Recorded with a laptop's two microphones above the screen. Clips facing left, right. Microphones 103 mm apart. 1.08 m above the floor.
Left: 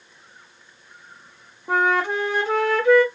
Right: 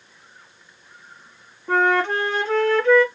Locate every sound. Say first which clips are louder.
1.7 s a flute: right 2 dB; 10° left (ahead or behind), 0.8 m